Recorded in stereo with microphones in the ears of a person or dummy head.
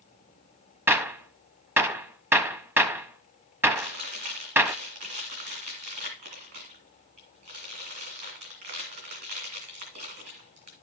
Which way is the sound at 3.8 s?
50° right (ahead or behind).